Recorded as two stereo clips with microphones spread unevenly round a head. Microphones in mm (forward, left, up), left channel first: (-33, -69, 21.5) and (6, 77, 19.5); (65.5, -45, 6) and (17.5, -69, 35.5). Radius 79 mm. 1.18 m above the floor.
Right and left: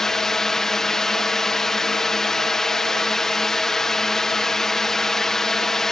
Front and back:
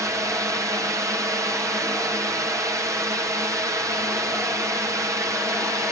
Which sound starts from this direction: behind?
A drone, at 0.0 s.